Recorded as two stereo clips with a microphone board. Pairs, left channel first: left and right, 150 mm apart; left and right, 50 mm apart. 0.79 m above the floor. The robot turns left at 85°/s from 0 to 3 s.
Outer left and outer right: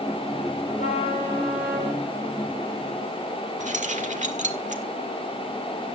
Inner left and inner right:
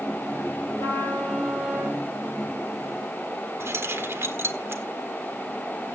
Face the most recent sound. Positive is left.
turn(degrees=-55)  # may be behind; listen again after turning